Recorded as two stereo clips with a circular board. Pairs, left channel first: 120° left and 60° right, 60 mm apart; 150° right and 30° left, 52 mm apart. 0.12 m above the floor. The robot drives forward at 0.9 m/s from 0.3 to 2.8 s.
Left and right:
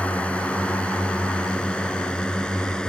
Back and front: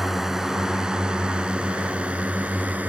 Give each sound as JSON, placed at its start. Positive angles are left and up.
{"t": 0.0, "sound": "a drone", "azimuth_deg": 105}